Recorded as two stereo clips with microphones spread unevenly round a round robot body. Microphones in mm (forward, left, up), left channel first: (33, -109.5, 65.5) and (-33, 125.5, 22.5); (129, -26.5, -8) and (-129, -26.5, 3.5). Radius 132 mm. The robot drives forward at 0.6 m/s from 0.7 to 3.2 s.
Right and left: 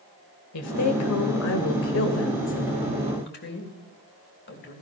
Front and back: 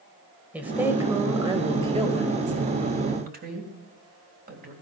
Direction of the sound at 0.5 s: 95° right.